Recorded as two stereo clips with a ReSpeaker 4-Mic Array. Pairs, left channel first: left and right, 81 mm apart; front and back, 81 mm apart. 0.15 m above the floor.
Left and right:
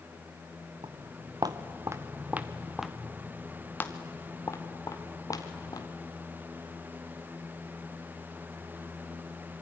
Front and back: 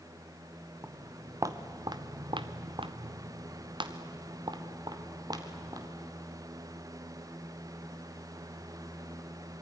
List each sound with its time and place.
0.8 s footsteps: 115° right, 1.8 m; by 5.9 s 135° left, 3.5 m